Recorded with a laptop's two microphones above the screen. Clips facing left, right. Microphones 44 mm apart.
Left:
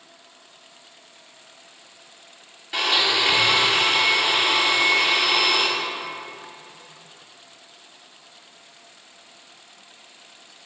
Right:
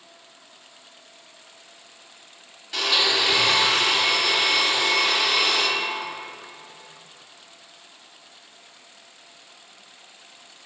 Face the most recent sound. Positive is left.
turn(degrees=25)  # may be behind; listen again after turning